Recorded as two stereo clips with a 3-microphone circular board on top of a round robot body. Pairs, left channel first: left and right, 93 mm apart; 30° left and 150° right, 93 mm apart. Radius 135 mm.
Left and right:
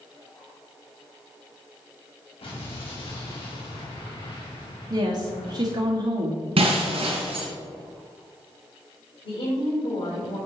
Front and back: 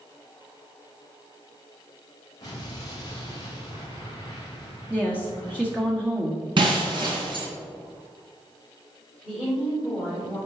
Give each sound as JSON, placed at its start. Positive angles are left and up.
{"t": 2.4, "sound": "an explosion", "azimuth_deg": 80, "distance_m": 3.0}
{"t": 4.9, "sound": "a woman speaking", "azimuth_deg": -70, "distance_m": 1.7}
{"t": 6.6, "sound": "breaking glass", "azimuth_deg": -115, "distance_m": 2.5}
{"t": 9.2, "sound": "a woman speaking", "azimuth_deg": 120, "distance_m": 3.5}